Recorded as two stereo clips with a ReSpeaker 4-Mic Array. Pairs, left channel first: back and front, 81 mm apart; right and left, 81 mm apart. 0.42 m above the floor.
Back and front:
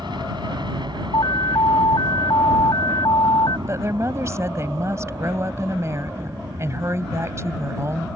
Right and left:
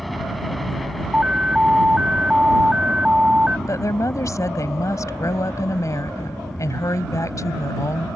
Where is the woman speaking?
50° right.